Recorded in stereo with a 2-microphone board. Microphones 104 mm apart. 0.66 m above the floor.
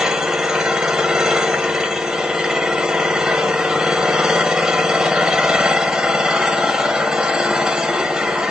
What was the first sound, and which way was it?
An engine running, 5° right (ahead or behind).